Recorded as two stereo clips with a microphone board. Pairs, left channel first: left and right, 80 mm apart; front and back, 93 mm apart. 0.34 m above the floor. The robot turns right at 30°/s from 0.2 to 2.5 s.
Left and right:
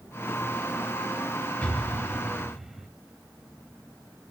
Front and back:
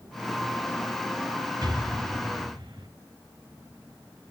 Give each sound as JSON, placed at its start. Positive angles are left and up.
{"t": 1.6, "sound": "an explosion", "azimuth_deg": 155, "distance_m": 1.9}